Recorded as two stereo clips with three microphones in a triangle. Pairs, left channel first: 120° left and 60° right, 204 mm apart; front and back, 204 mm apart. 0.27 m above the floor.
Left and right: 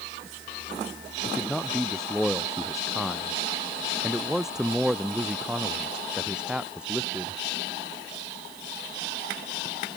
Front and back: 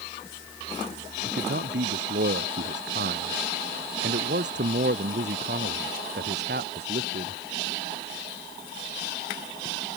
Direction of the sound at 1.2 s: 155° right.